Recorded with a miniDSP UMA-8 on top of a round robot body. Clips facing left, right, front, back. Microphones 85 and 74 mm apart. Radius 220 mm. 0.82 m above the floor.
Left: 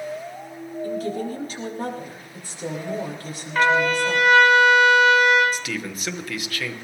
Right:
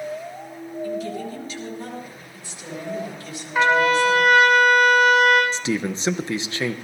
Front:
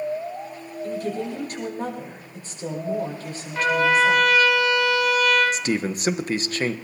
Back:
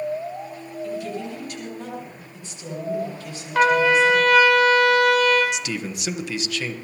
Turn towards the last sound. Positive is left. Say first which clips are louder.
# right 5 dB, front 4 dB
turn(degrees=-35)